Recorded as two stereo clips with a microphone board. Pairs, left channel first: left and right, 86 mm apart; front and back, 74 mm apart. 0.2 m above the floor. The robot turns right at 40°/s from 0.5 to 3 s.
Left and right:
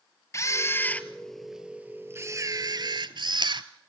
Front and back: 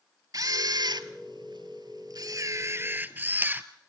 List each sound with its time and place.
0.3 s a camera shutter: 145° left, 0.9 m; by 3.6 s 115° right, 0.9 m